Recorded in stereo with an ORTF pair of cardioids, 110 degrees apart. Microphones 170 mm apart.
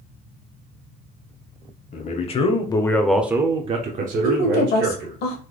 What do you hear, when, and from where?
1.9 s a man speaking: 45° left, 1.0 m; by 5.2 s 80° right, 1.3 m
4.2 s a woman speaking: 65° left, 1.3 m